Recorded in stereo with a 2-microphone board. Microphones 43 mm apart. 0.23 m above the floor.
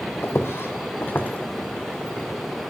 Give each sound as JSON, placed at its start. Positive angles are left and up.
{"t": 0.2, "sound": "footsteps", "side_deg": 70, "distance_m": 0.6}